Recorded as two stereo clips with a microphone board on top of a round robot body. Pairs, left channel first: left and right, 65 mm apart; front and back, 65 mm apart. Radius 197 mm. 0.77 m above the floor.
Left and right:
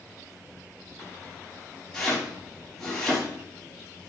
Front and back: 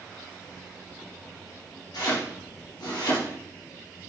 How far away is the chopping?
About 4 m.